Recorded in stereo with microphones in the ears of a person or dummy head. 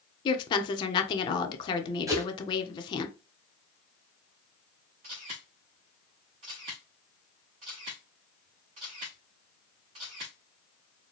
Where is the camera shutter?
25° right (ahead or behind), 0.9 m.